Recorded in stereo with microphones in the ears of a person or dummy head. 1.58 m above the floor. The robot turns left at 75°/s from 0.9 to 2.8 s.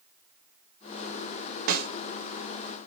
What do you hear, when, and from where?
1.7 s a snare drum: 50° right (ahead or behind), 0.8 m; by 1.9 s 65° right (ahead or behind), 0.8 m